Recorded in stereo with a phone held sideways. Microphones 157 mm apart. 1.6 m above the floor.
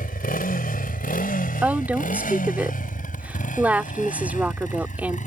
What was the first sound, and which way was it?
A motorcycle, 75° left (ahead or behind).